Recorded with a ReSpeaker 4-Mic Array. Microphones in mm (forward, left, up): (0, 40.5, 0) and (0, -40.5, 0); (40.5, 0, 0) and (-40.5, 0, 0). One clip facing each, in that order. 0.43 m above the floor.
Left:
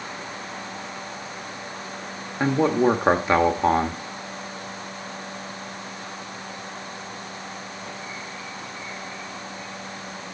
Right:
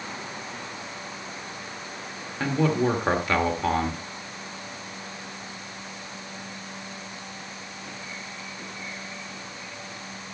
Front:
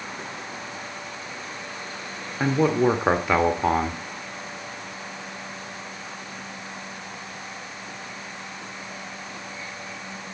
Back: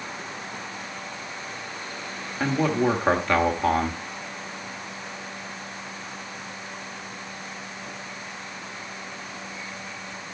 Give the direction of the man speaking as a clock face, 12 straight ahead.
10 o'clock.